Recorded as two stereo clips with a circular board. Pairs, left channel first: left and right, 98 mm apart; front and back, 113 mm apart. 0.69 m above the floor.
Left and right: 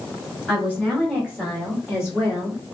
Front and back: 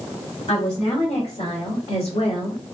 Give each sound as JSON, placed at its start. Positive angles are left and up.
{"t": 0.5, "sound": "a woman speaking", "azimuth_deg": -10, "distance_m": 2.5}